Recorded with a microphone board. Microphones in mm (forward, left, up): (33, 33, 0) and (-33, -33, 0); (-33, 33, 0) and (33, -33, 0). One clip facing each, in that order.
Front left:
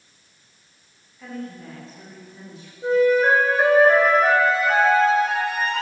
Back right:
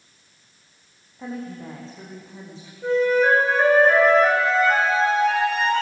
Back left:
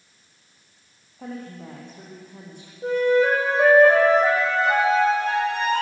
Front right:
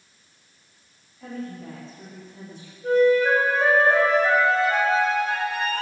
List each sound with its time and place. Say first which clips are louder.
1.2 s a woman speaking: back right 2 dB, front right 1 dB; 165° left, 8.5 m
2.8 s a flute: front left 1 dB, front right 1 dB; 130° left, 8 m